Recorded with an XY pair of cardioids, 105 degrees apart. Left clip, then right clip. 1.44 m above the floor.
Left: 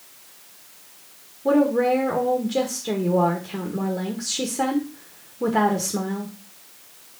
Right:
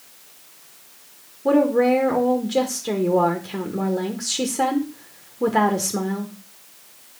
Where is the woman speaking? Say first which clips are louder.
Right 2 dB; 15° right, 1.4 m.